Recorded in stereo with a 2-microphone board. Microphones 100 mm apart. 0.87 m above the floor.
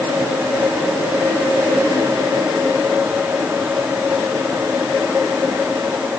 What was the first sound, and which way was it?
Only background noise.